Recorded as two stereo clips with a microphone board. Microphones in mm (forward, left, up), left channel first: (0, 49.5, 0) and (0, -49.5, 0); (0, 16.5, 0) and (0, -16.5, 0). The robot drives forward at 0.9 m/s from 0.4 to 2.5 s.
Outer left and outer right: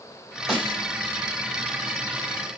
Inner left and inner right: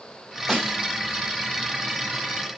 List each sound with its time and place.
0.5 s a snare drum: 5° right (ahead or behind), 3 m